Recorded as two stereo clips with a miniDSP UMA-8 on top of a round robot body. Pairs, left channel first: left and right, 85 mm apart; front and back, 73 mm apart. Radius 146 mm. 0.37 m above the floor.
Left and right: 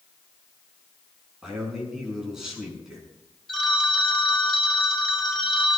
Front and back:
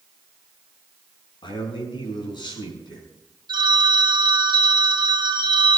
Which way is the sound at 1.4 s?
5° right.